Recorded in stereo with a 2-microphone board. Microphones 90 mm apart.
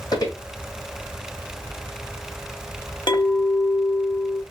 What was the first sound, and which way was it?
Footsteps, 45° left (ahead or behind).